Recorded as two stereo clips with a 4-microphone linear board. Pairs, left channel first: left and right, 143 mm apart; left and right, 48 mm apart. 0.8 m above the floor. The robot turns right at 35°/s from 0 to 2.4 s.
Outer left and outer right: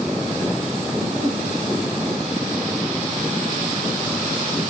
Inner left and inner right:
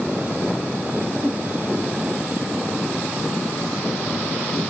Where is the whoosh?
55° right (ahead or behind), 4 m; by 1.5 s 70° right (ahead or behind), 4 m.